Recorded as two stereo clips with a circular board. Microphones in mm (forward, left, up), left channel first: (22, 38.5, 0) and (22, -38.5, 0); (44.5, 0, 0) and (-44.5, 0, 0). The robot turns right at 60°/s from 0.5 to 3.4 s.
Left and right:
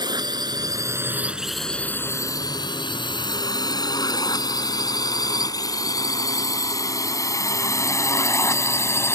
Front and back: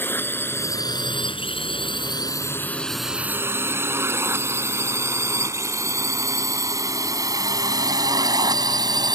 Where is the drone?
65° right; by 9.2 s 145° left.